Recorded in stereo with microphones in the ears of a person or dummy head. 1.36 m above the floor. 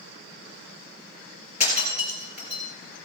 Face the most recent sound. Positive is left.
turn(degrees=35)  # may be behind; listen again after turning